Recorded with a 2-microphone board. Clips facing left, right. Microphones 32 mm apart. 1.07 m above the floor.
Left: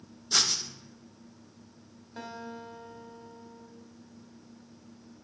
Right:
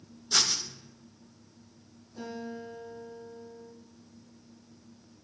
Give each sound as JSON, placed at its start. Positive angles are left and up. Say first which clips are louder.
{"t": 0.3, "sound": "writing", "louder": "even", "side_deg": 0, "distance_m": 0.7}
{"t": 2.2, "sound": "a guitar", "louder": "right 2 dB", "side_deg": 55, "distance_m": 1.4}